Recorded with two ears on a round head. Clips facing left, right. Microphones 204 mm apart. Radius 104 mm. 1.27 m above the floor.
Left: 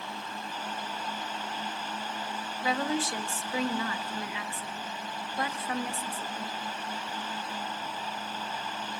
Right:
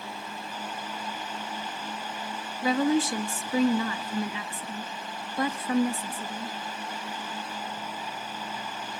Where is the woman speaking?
85° right, 1.7 m.